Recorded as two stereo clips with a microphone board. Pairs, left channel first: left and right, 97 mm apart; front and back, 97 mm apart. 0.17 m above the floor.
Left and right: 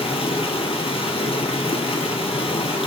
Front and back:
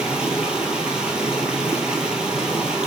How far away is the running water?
About 0.7 m.